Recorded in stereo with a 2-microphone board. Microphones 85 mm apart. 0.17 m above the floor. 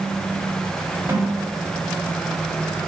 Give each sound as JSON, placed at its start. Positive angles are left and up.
{"t": 1.1, "sound": "a snare drum", "side_deg": -30, "distance_m": 1.4}